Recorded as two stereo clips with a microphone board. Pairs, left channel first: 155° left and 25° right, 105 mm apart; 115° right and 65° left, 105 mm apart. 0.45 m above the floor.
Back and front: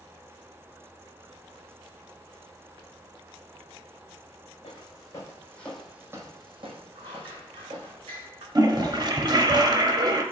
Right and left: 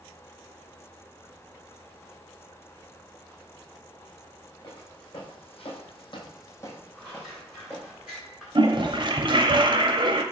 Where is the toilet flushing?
25° left, 0.5 m.